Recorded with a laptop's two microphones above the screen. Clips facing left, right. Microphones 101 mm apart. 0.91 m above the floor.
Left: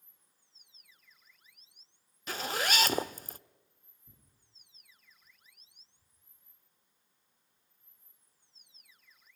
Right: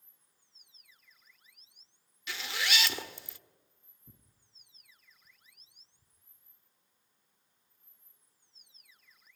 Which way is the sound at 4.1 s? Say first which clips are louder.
Right 5 dB; 35° right (ahead or behind).